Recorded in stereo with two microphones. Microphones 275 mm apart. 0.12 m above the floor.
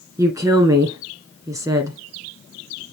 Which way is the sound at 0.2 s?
10° right (ahead or behind).